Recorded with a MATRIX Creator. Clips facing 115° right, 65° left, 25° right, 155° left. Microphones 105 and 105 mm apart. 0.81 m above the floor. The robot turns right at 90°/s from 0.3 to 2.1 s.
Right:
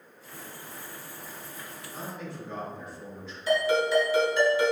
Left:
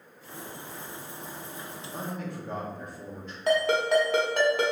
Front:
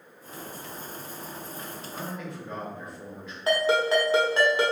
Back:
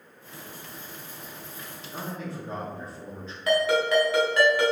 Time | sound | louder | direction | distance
1.9 | a man speaking | left 3 dB, back 3 dB | 85° left | 1.4 m
3.5 | a ringtone | even, even | 40° left | 1.1 m